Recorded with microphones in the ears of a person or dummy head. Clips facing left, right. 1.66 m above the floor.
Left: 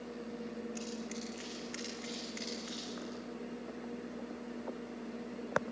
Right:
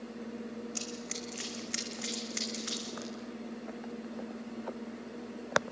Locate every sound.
0.8 s running footsteps: 70° right (ahead or behind), 5 m; by 3.1 s 65° right (ahead or behind), 6 m